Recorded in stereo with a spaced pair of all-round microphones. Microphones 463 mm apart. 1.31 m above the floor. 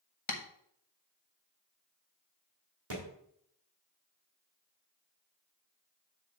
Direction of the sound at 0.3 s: 80° left.